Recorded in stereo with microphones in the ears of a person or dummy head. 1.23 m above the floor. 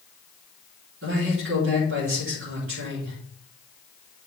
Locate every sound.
1.0 s a man speaking: 60° right (ahead or behind), 4 m